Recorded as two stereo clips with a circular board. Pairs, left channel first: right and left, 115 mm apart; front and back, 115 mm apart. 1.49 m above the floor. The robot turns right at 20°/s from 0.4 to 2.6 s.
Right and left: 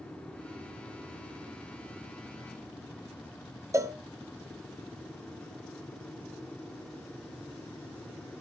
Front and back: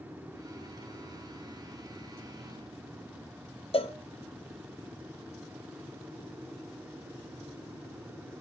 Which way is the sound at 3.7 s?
30° left.